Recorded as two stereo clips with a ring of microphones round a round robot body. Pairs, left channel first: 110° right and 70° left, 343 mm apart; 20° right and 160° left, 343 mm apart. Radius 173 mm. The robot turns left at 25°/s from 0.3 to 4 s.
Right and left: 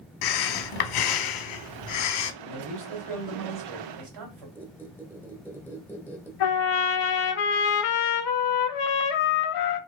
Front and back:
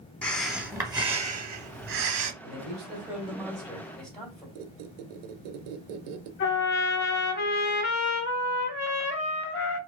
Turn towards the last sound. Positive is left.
turn(degrees=-85)